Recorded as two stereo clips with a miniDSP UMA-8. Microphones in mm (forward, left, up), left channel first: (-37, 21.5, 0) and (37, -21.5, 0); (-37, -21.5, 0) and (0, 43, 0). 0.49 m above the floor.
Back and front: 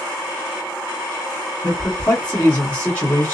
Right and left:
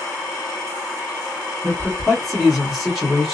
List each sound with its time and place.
1.6 s a man speaking: 145° left, 1.3 m